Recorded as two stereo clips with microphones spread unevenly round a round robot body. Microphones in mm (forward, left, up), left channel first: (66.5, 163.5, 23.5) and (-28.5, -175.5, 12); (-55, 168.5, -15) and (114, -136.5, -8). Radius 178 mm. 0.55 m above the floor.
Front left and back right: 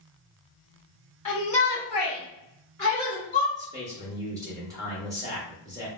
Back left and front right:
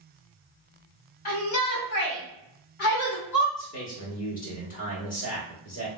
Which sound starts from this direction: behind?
A man speaking, at 3.5 s.